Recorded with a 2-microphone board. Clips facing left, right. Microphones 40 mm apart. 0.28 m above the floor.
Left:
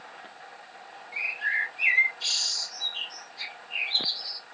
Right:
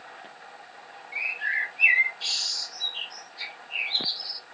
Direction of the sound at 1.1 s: 35° right (ahead or behind).